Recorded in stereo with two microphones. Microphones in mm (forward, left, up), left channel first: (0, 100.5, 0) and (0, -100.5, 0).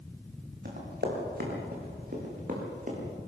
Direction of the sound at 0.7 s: 55° right (ahead or behind).